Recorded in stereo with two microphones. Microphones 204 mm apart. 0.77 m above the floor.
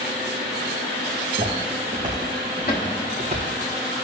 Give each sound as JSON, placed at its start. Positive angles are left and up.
{"t": 1.3, "sound": "footsteps", "side_deg": -45, "distance_m": 3.0}
{"t": 2.7, "sound": "a cupboard door", "side_deg": 50, "distance_m": 1.4}